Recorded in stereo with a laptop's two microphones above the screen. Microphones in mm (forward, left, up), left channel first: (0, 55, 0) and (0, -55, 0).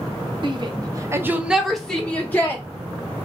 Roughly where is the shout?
Right.